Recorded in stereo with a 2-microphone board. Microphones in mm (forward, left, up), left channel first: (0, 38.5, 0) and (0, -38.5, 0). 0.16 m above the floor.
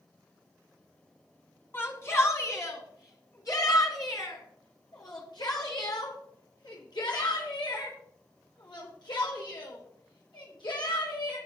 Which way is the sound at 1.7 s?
30° left (ahead or behind).